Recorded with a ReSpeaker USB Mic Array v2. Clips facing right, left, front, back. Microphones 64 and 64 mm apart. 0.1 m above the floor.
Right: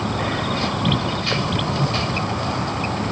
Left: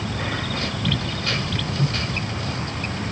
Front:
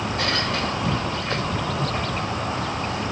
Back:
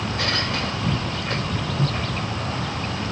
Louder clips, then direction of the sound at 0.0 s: Right 5 dB, front 1 dB; 70° right.